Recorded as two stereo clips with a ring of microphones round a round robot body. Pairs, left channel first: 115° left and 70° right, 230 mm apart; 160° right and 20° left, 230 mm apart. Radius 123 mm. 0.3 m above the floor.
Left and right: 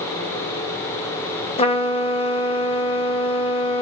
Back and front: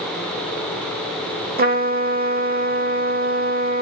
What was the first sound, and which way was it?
A trumpet, 55° left.